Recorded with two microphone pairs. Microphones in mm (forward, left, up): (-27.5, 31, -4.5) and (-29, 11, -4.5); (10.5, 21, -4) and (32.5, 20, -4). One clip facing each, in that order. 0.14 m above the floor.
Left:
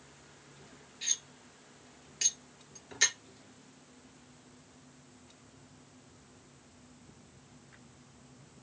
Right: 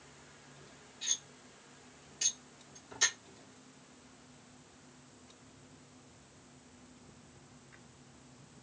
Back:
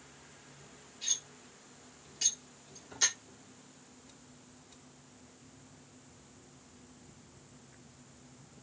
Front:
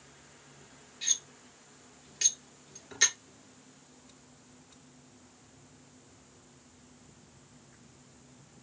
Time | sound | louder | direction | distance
1.0 | cutlery clinking | left 2 dB, front 3 dB | 40° left | 1.6 m